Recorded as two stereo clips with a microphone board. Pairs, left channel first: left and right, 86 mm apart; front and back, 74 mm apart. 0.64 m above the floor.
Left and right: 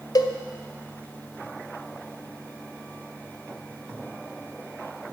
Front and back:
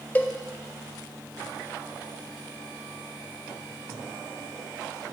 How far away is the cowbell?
About 0.6 m.